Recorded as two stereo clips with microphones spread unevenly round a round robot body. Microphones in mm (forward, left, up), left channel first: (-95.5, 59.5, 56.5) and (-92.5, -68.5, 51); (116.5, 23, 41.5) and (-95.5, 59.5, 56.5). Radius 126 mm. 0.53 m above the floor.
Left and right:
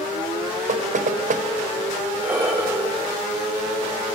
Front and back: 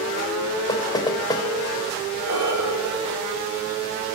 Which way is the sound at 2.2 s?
165° right.